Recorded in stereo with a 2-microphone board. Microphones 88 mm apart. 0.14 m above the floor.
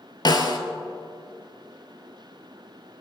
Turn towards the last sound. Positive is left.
turn(degrees=55)  # may be behind; listen again after turning